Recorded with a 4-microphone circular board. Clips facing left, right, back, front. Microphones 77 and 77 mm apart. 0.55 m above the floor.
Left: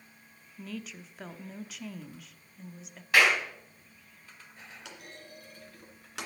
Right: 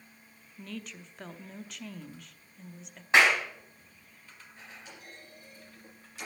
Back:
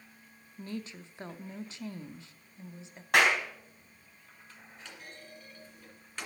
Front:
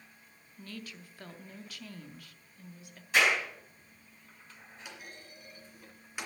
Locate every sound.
0.6 s a woman speaking: 175° left, 0.6 m
3.1 s a clap: 155° right, 3.5 m
4.8 s a clunk: 80° left, 2 m